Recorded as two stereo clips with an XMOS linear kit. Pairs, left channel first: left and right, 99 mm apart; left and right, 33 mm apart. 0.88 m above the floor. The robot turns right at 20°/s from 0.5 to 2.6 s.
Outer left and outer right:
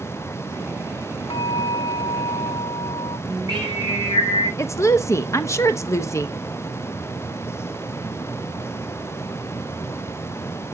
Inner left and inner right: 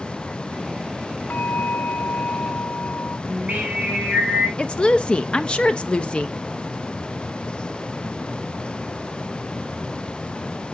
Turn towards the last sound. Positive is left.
turn(degrees=30)  # may be behind; listen again after turning